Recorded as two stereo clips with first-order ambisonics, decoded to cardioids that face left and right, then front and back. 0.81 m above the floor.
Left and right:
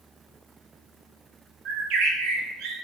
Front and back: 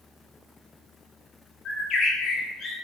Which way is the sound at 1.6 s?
55° right.